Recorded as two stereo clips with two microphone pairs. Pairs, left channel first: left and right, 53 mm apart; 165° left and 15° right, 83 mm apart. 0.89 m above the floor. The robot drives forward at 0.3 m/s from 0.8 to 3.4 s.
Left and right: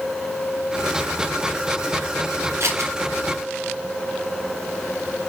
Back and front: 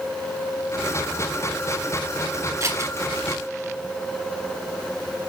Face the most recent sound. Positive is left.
turn(degrees=-70)